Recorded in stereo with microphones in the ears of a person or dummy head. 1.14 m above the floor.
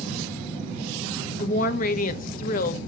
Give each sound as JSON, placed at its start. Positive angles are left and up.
{"t": 1.4, "sound": "a woman speaking", "side_deg": 45, "distance_m": 0.9}